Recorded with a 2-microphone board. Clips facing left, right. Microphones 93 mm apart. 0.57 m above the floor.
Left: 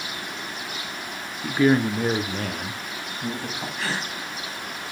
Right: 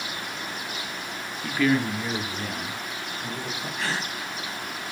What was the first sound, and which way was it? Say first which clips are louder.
A man speaking: left 4 dB; 10° left (ahead or behind).